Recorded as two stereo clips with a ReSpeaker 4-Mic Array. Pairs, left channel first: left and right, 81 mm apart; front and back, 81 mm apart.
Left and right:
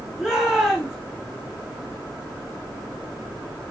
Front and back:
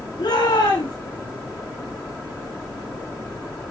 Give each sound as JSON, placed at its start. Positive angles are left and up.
{"t": 0.2, "sound": "a shout", "azimuth_deg": -10, "distance_m": 4.5}